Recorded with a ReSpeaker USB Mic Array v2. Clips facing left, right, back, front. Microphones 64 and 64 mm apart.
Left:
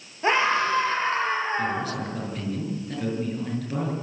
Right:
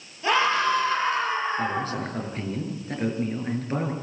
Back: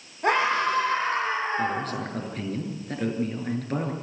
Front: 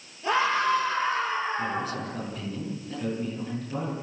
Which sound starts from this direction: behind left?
A scream, at 0.2 s.